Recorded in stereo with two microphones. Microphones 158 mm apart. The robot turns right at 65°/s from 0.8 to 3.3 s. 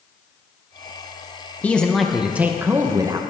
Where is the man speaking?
10° left (ahead or behind), 0.8 m; by 3.2 s 20° right (ahead or behind), 0.8 m.